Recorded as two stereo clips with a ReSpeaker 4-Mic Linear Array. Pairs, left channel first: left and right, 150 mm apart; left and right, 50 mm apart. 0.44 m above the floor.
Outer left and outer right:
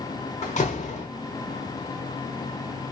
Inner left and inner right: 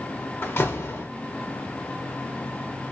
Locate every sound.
0.4 s a door slam: 50° left (ahead or behind), 0.8 m